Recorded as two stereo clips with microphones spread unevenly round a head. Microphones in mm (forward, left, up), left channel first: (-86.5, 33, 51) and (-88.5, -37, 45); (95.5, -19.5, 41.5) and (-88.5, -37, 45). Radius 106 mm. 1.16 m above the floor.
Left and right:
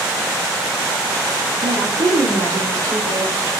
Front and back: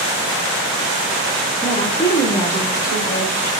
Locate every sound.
1.6 s a woman speaking: 65° right, 1.7 m